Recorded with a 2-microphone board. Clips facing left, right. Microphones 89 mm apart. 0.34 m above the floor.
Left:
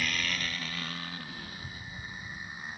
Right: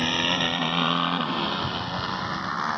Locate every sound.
0.0 s a motorcycle: 50° right (ahead or behind); by 2.8 s 80° right